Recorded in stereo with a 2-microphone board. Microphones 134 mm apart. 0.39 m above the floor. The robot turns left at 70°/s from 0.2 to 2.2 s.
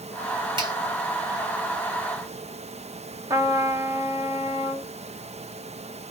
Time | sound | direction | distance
0.6 | a finger snap | 40° right (ahead or behind) | 2 m
3.3 | a trumpet | 25° right (ahead or behind) | 1.1 m